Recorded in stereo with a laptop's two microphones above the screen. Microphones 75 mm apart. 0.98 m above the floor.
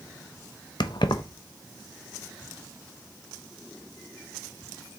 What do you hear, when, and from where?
0.8 s keys jangling: 70° left (ahead or behind), 0.5 m